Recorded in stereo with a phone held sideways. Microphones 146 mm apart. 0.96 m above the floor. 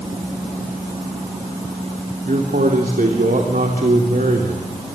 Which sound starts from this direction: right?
A man speaking, at 2.2 s.